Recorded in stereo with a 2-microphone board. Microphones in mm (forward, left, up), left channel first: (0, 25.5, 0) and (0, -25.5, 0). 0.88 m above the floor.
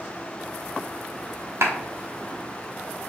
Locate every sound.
1.6 s a clap: 65° right (ahead or behind), 1.2 m